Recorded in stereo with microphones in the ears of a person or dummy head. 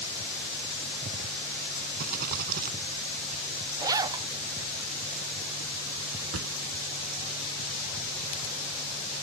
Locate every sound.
2.0 s a rattle: 50° right (ahead or behind)
3.8 s a zipper: 20° right (ahead or behind)
6.3 s a drawer: 75° right (ahead or behind)